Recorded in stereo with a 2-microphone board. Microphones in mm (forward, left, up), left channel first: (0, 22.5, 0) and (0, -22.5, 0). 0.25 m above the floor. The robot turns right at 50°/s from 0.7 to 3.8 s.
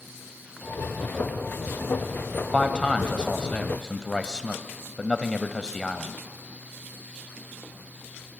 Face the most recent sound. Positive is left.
turn(degrees=15)  # may be behind; listen again after turning